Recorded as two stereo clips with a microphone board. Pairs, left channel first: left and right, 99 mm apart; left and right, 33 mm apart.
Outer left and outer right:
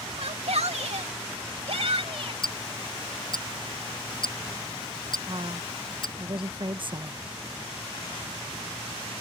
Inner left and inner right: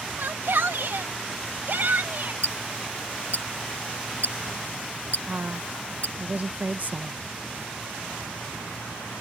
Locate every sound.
0.2 s a shout: 75° right (ahead or behind); by 2.3 s 60° right (ahead or behind)
2.4 s ticking: 50° left (ahead or behind)
5.3 s a woman speaking: 50° right (ahead or behind)